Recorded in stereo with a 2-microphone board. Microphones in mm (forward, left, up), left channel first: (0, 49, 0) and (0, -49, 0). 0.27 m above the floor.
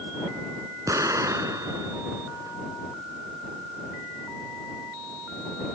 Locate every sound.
0.9 s an explosion: 35° right (ahead or behind)